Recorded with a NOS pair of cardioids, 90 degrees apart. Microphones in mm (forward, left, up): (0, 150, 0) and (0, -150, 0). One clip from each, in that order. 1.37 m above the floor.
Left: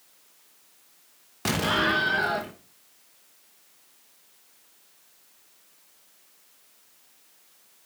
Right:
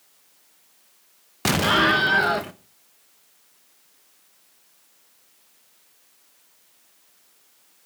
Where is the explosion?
30° right, 1.0 m.